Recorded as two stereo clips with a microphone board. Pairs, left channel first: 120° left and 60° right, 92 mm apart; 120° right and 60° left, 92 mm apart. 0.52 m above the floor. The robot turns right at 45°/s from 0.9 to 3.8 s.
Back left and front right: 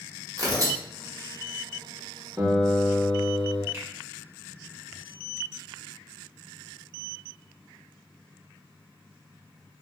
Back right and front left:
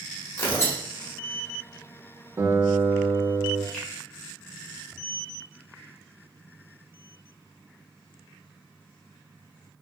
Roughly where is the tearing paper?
Right.